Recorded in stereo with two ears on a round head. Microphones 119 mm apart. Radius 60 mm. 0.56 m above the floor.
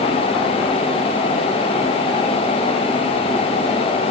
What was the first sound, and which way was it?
Only background noise.